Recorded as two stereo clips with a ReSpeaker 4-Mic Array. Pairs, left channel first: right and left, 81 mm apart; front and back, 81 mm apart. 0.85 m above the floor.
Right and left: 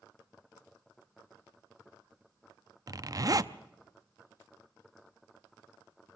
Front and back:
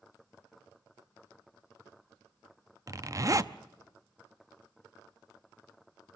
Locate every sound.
2.9 s a zipper: 130° left, 0.6 m